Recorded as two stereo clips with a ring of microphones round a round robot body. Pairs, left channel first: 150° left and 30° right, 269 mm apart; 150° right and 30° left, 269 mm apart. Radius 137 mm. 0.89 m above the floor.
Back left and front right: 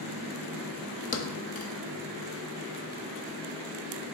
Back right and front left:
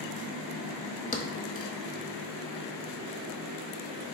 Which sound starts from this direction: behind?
A thud, at 1.1 s.